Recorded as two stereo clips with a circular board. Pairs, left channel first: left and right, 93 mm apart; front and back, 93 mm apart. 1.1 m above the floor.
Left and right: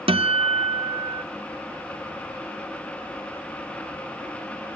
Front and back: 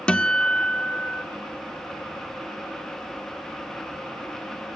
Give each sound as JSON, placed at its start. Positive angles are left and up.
{"t": 0.1, "sound": "a guitar", "azimuth_deg": -80, "distance_m": 0.6}